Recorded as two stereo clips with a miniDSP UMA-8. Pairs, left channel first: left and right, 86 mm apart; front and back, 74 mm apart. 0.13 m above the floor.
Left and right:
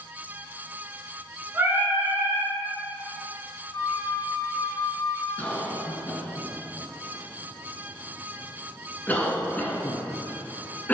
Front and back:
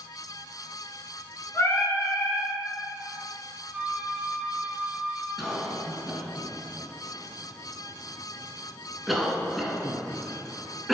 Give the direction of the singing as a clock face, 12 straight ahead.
1 o'clock.